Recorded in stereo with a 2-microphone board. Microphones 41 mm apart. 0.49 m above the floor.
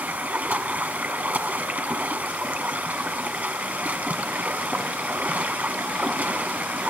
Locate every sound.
0.0 s running water: 45° right (ahead or behind), 1.2 m